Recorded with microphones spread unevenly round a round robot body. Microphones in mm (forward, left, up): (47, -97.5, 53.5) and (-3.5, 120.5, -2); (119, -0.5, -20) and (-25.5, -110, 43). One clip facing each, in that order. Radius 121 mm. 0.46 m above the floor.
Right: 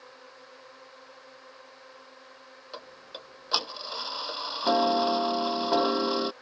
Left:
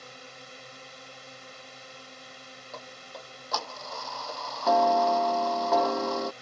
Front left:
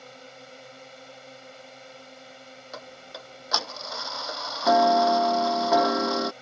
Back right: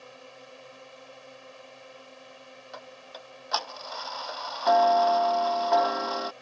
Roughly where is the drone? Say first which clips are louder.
Left 2 dB, front left 2 dB; left.